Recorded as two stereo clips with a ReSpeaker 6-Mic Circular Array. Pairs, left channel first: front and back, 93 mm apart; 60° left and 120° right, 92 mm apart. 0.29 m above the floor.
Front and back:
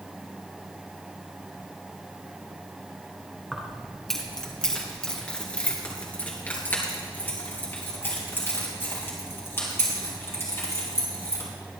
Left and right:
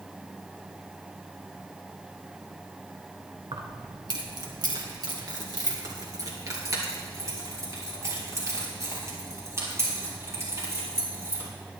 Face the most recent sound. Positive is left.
turn(degrees=-60)